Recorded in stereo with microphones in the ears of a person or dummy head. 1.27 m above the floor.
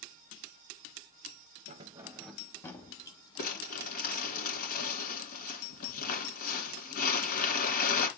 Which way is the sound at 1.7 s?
30° right (ahead or behind).